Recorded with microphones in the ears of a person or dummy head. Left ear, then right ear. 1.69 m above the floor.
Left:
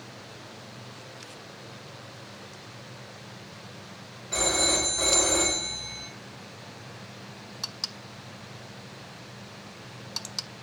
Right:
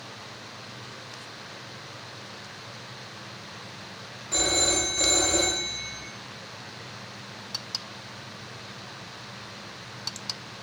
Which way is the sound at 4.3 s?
25° right (ahead or behind).